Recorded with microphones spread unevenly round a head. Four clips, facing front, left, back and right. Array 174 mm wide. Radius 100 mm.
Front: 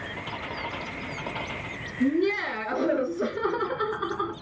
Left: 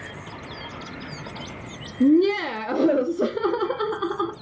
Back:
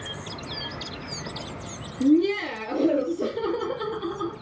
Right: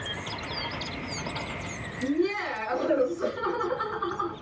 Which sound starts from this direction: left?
Laughter, at 2.0 s.